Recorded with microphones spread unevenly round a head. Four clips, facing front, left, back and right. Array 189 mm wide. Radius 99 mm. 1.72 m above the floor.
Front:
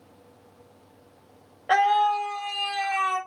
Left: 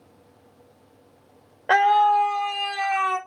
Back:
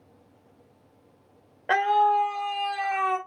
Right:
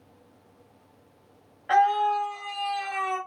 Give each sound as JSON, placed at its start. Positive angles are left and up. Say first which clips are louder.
{"t": 1.7, "sound": "a scream", "louder": "left 4 dB, even", "azimuth_deg": 135, "distance_m": 0.9}